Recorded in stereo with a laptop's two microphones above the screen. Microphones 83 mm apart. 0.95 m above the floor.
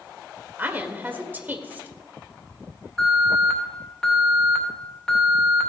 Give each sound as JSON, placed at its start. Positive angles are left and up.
{"t": 0.6, "sound": "a woman speaking", "side_deg": -20, "distance_m": 1.6}
{"t": 3.0, "sound": "an alarm", "side_deg": 10, "distance_m": 2.5}